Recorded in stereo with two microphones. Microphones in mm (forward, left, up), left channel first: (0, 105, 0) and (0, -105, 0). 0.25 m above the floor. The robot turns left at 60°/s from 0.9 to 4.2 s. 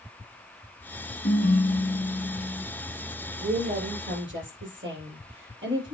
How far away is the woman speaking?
About 6 m.